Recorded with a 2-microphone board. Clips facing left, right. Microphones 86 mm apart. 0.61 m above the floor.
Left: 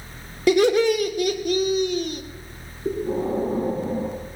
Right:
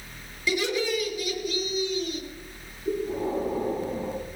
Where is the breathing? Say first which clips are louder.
Left 3 dB; 50° left (ahead or behind), 6 m.